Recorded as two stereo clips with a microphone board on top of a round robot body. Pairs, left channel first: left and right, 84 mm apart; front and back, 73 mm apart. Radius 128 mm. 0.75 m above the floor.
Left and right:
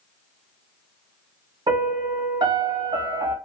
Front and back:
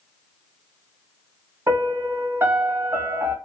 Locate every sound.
1.7 s a piano: 125° right, 0.9 m